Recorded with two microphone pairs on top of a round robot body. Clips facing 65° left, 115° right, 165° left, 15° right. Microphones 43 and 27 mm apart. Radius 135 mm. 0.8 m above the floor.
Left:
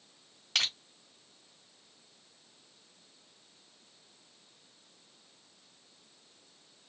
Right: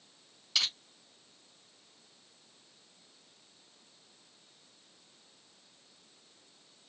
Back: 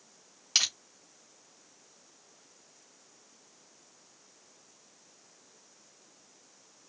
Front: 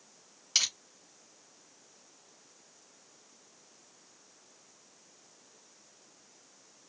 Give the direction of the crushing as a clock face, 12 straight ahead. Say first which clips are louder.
Left 1 dB, back 2 dB; 9 o'clock.